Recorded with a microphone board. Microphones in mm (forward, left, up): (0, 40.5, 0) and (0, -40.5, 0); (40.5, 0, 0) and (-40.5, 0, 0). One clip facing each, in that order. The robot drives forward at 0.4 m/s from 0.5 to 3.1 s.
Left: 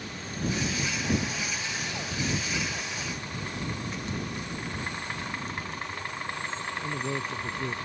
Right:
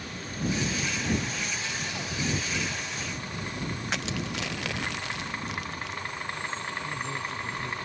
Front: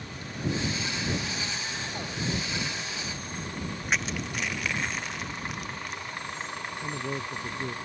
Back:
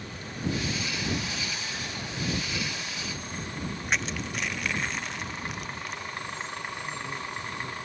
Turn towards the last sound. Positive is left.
turn(degrees=45)